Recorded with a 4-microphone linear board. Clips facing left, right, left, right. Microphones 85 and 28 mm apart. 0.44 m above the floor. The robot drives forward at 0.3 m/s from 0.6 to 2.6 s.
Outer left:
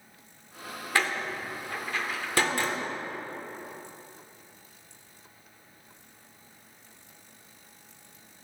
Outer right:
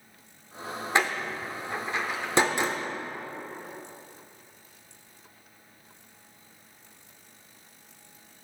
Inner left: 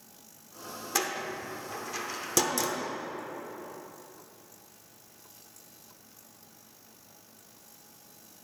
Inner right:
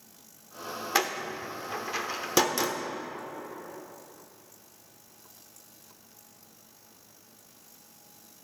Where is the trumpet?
No trumpet in this recording.